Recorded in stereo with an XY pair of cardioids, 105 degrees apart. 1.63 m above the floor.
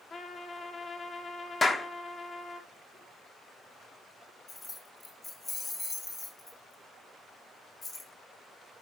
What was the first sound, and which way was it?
A trumpet, 35° left.